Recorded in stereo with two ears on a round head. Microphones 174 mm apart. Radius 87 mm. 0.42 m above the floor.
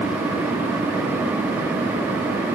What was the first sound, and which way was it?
Only background noise.